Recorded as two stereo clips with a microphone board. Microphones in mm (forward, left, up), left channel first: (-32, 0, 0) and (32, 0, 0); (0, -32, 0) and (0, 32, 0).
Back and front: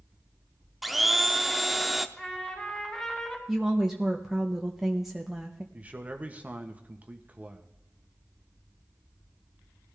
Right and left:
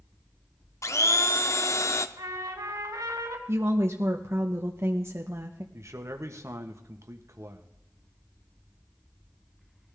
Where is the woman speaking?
80° left, 1.0 m.